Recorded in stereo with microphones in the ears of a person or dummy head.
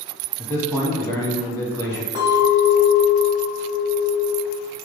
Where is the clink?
15° right (ahead or behind), 1.5 m.